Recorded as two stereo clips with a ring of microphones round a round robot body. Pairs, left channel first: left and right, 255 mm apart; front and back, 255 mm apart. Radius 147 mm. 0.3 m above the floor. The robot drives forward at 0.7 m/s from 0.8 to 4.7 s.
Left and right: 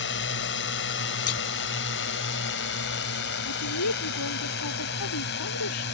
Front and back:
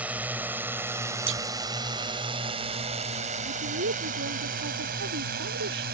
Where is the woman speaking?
125° left; by 5.8 s 130° left.